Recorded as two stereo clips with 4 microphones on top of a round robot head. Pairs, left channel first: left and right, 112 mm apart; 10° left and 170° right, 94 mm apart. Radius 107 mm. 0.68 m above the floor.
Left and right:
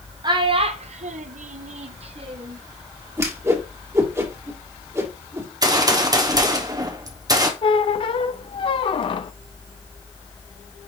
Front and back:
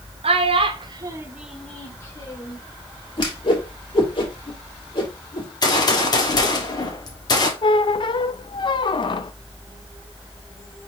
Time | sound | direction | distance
0.2 | a child speaking | 145° right | 1.1 m
3.2 | a whoosh | 25° right | 2 m
5.6 | a gunshot | 35° right | 1.5 m
7.6 | a squeak | 45° left | 0.6 m